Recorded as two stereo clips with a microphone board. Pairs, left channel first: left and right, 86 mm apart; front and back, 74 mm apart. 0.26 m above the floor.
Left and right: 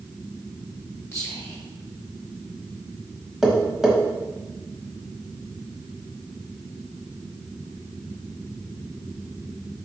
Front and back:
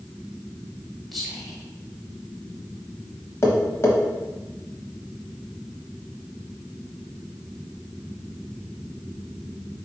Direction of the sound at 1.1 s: 85° left.